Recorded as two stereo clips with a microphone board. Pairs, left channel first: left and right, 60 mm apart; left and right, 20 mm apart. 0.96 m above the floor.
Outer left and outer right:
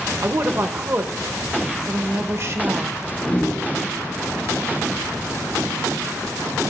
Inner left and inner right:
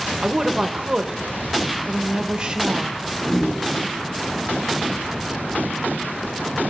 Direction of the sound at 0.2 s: 50° right (ahead or behind).